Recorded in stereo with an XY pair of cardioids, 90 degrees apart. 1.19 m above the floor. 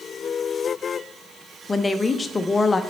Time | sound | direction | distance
1.7 | a woman speaking | 30° left | 0.7 m